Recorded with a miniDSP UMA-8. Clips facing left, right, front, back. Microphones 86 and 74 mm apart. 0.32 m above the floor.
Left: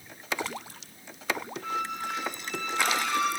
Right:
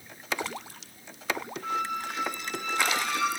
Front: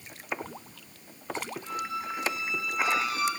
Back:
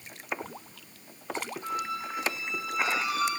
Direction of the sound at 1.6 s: 175° right.